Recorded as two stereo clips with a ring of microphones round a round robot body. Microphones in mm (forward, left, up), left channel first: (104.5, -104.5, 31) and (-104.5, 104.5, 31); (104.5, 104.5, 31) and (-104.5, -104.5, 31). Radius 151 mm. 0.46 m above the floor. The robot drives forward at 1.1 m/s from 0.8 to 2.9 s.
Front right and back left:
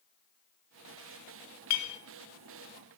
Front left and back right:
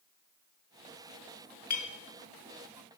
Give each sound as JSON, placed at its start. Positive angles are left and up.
{"t": 1.7, "sound": "a clink", "azimuth_deg": -15, "distance_m": 0.7}